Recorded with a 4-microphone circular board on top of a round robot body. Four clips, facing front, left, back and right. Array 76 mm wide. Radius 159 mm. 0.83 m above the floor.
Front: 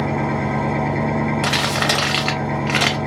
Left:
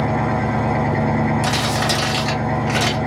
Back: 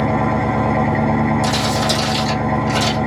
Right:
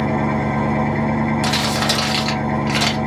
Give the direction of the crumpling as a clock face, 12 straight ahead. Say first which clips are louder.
Even, back 2 dB; 12 o'clock.